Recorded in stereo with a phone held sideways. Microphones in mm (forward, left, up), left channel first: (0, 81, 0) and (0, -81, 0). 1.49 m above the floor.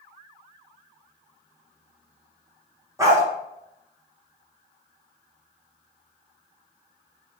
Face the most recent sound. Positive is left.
turn(degrees=-20)  # may be behind; listen again after turning